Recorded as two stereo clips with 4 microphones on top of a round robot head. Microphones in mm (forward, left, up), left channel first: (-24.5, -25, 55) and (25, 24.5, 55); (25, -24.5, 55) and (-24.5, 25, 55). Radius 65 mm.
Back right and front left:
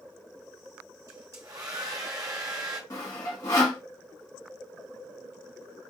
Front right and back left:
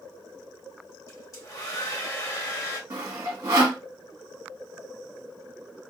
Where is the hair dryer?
5° left, 0.9 m.